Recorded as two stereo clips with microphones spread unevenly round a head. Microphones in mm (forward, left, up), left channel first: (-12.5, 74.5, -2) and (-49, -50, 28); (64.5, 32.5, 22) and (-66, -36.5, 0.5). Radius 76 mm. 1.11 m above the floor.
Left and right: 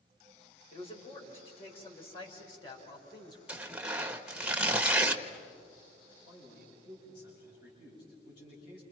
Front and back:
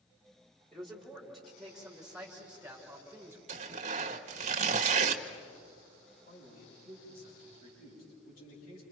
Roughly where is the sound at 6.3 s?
Ahead left.